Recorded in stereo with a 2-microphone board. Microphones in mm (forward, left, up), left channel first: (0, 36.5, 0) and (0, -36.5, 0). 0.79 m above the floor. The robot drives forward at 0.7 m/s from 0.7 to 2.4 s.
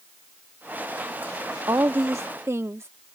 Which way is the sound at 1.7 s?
50° right (ahead or behind).